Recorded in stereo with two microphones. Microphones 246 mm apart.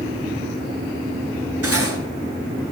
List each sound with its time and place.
1.6 s cutlery clinking: 75° right (ahead or behind), 2.5 m